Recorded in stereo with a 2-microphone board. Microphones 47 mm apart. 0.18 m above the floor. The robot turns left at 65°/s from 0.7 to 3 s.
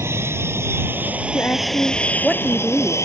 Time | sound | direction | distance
0.0 | an aircraft | 60° right (ahead or behind) | ?
1.3 | a woman speaking | 65° left | ?